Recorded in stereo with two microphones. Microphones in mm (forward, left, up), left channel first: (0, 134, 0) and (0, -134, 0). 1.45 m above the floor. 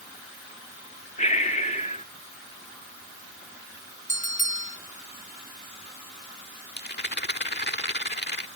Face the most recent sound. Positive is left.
turn(degrees=40)  # may be behind; listen again after turning